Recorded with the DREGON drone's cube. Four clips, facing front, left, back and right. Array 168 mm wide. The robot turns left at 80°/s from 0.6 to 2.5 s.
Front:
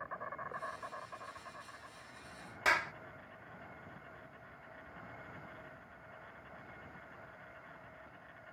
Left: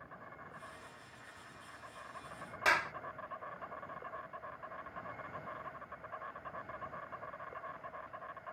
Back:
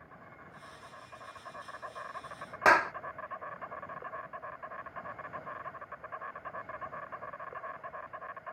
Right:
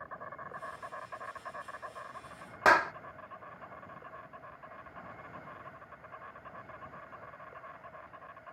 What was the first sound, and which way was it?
An insect, 40° right.